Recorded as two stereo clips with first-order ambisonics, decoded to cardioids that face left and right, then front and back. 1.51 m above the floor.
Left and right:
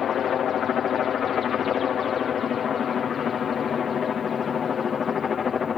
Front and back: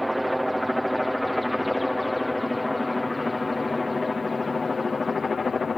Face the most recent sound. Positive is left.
turn(degrees=50)